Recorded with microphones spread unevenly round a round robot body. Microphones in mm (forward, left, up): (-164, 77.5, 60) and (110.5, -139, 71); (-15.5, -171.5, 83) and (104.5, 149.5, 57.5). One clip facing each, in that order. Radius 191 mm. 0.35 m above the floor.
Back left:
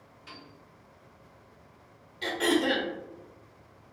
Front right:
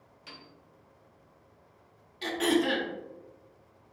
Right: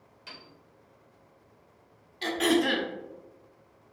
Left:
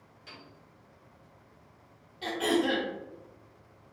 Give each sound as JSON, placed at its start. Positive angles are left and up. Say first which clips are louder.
{"t": 0.3, "sound": "a piano", "louder": "back left 2 dB, even", "azimuth_deg": -45, "distance_m": 1.4}
{"t": 2.2, "sound": "throat clearing", "louder": "even, right 3 dB", "azimuth_deg": -100, "distance_m": 0.8}